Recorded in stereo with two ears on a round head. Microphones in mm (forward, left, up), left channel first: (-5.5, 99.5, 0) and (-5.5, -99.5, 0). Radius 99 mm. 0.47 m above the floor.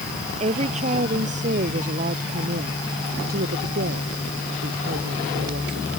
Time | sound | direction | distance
0.4 | a woman speaking | 30° right (ahead or behind) | ?